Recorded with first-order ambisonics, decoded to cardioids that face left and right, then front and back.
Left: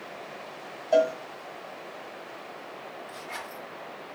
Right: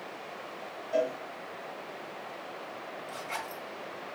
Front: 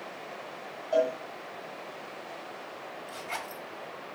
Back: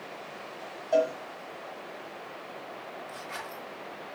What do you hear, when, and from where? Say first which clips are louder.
0.9 s a cowbell: left 7 dB, back 1 dB; 100° left, 0.9 m
3.1 s a zipper: right 2 dB, front 4 dB; 25° right, 1.7 m